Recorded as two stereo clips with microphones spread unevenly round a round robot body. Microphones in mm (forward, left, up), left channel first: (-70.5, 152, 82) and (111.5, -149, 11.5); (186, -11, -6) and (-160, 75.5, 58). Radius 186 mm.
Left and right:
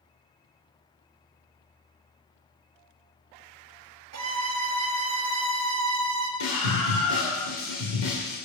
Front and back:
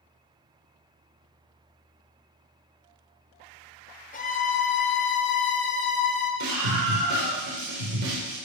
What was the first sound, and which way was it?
A violin, 70° right.